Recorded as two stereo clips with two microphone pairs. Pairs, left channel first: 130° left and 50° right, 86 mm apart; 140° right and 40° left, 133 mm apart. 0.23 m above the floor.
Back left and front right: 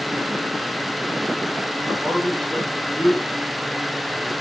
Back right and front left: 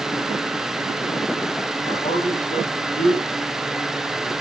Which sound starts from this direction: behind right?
A man speaking, at 1.9 s.